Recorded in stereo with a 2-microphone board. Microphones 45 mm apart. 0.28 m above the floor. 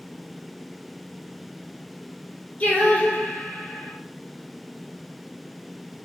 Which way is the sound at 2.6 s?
35° left (ahead or behind).